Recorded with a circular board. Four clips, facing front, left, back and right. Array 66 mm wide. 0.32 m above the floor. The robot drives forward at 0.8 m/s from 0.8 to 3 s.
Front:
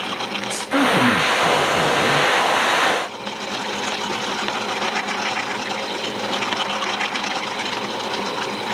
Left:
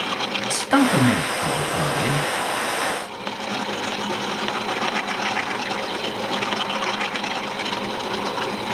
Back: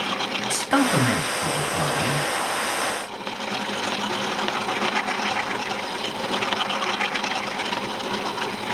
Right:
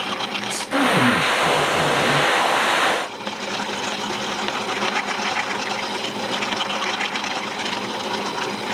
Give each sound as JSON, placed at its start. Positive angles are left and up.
{"t": 0.5, "sound": "a man speaking", "azimuth_deg": 120, "distance_m": 3.5}